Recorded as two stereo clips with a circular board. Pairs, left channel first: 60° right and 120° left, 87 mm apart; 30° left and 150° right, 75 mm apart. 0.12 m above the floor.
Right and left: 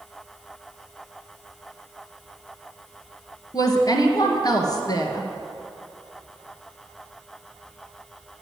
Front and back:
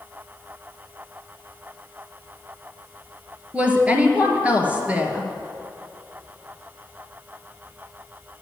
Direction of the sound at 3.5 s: 80° right.